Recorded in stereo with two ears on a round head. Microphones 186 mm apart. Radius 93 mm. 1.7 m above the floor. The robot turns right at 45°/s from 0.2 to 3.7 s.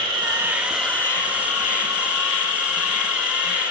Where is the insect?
25° right, 1.3 m; by 3.7 s 130° left, 1.3 m.